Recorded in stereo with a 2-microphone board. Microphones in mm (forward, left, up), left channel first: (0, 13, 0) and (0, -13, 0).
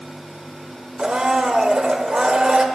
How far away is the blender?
About 0.8 m.